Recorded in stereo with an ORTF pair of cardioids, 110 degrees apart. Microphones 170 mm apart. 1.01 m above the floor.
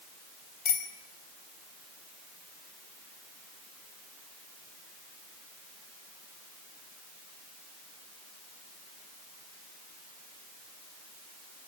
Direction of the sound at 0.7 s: 55° left.